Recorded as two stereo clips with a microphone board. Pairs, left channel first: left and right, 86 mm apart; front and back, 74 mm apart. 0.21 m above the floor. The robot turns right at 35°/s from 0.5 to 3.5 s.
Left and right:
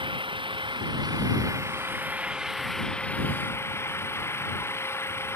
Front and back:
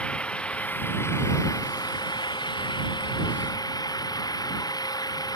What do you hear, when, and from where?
0.0 s an engine running: 75° right; by 5.4 s 30° left